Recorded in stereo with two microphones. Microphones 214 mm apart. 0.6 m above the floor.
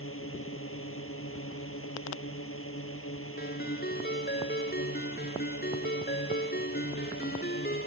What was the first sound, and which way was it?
A drone, 85° left.